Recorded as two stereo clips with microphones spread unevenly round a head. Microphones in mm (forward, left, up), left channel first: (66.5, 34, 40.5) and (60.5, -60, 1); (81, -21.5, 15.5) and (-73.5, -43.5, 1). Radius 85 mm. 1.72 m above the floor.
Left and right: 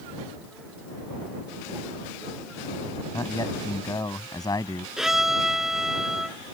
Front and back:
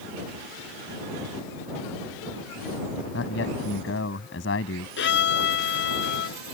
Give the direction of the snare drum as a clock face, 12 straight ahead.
I don't hear a snare drum.